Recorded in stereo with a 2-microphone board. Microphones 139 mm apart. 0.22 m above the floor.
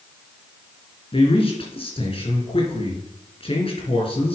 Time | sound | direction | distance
1.1 | a man speaking | 45° left (ahead or behind) | 3.5 m